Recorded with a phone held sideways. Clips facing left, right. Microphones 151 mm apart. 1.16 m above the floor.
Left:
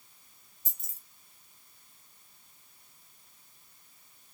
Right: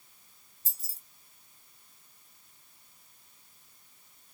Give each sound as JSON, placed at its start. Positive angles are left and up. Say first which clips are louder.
{"t": 0.7, "sound": "keys jangling", "louder": "right 2 dB", "side_deg": -35, "distance_m": 1.4}